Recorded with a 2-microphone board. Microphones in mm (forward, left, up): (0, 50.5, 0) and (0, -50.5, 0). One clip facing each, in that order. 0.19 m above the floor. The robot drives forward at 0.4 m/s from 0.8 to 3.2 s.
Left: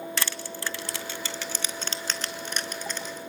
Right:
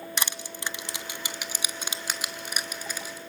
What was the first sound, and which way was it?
Crushing, 20° right (ahead or behind).